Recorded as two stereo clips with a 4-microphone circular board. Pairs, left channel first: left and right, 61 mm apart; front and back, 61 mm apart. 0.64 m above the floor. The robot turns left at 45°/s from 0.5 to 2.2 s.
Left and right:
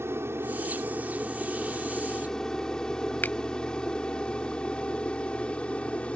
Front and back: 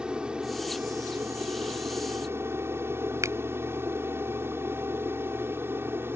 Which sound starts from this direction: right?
An aircraft, at 0.0 s.